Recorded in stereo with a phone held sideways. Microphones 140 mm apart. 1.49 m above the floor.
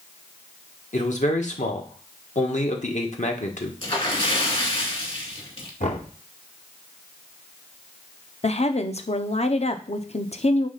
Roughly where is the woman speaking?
Left.